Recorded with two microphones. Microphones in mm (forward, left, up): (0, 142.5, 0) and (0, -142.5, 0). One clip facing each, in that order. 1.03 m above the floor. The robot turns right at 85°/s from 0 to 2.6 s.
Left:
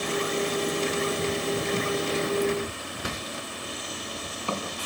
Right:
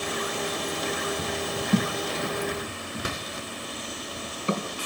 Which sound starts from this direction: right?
A thud, at 1.7 s.